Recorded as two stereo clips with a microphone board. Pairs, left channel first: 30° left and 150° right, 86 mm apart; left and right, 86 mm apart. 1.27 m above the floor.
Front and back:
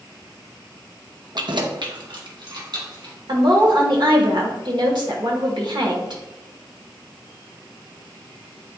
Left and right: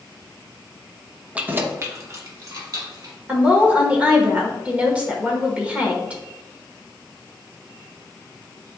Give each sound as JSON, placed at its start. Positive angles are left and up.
{"t": 1.4, "sound": "keys jangling", "azimuth_deg": -165, "distance_m": 0.7}
{"t": 3.3, "sound": "a woman speaking", "azimuth_deg": -165, "distance_m": 1.3}